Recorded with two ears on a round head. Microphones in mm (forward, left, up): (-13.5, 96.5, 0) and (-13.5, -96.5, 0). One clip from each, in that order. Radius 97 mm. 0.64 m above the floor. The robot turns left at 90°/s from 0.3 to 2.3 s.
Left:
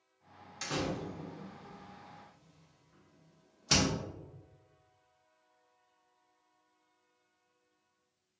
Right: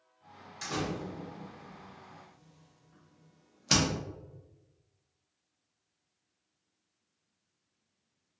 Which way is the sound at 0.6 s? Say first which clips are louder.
Right 1 dB; 20° left (ahead or behind).